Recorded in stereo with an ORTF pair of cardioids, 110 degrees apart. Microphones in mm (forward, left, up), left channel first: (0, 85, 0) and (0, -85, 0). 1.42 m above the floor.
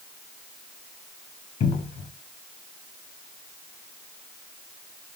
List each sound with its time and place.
1.6 s a cupboard door: 40° left, 0.9 m